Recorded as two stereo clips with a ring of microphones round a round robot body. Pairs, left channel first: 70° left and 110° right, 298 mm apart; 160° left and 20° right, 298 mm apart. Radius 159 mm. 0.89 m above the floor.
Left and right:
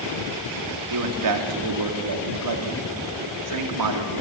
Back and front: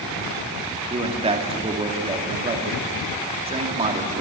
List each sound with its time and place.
0.9 s a man speaking: 95° right, 2.5 m